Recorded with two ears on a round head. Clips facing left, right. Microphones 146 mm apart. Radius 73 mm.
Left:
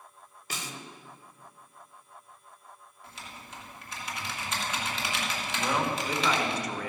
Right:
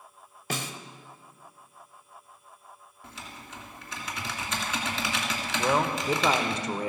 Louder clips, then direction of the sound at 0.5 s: Right 6 dB; 50° right (ahead or behind).